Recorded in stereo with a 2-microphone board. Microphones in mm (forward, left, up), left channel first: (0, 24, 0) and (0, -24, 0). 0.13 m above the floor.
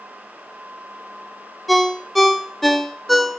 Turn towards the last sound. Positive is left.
turn(degrees=0)  # may be behind; listen again after turning